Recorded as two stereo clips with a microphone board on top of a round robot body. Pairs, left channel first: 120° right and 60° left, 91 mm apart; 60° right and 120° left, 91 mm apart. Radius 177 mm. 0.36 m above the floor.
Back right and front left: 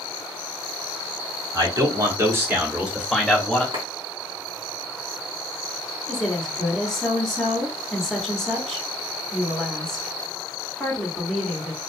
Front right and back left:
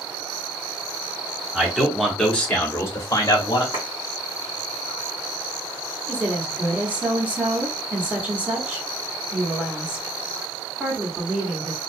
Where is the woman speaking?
160° left, 1.4 m.